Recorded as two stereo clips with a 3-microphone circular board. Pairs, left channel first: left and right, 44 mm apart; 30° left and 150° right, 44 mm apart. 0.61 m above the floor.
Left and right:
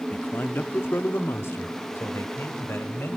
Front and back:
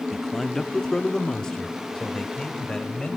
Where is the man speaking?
115° left, 0.7 m; by 3.2 s 100° left, 2.5 m.